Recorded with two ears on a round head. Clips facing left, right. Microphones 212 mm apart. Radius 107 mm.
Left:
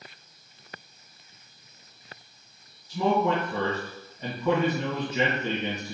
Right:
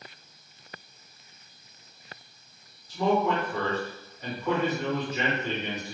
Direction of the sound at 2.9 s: 75° left (ahead or behind).